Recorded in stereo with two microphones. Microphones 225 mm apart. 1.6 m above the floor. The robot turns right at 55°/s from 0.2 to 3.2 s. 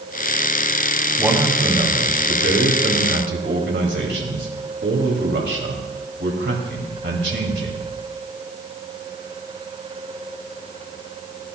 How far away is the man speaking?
About 2.5 m.